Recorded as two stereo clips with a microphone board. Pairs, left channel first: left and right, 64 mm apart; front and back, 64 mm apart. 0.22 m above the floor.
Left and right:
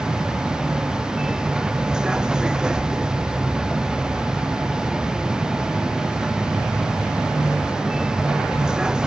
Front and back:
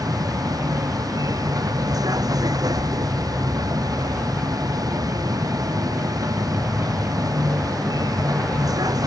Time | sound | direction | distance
0.0 | a vehicle | 170° right | ?